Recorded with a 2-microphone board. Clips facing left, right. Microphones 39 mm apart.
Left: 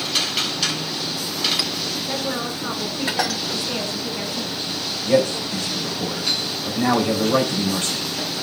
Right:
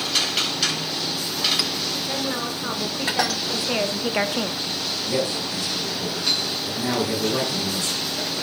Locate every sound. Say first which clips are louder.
2.1 s a woman speaking: left 2 dB; 5° left (ahead or behind), 3.5 m; by 4.6 s 70° right (ahead or behind), 1.1 m
5.0 s a man speaking: left 8 dB; 50° left (ahead or behind), 4 m